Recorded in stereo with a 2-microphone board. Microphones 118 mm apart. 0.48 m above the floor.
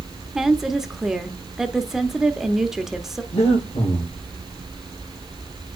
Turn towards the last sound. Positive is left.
turn(degrees=60)  # may be behind; listen again after turning